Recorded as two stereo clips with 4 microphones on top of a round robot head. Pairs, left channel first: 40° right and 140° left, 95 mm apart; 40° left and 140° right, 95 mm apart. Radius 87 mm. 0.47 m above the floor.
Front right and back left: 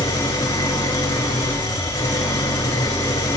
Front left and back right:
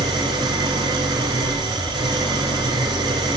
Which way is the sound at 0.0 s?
95° right.